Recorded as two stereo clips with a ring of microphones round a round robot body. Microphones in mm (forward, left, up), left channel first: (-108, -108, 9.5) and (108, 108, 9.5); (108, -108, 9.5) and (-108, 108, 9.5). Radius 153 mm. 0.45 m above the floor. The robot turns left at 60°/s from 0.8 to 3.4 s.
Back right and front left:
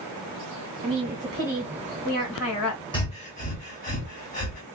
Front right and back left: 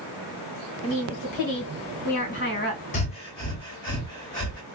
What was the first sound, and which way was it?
A woman speaking, 5° left.